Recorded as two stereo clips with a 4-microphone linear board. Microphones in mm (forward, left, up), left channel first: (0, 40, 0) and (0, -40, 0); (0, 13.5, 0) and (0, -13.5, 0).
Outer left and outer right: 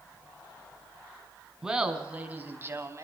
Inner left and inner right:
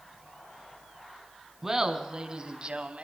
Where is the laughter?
10° right (ahead or behind), 4 m; by 3.0 s 40° right (ahead or behind), 3 m.